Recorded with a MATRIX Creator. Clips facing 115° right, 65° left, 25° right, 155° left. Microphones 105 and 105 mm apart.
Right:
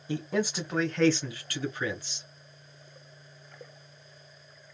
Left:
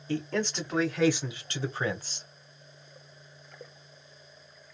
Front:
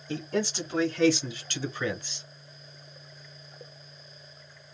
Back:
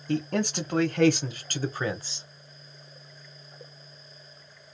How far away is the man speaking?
About 1.1 m.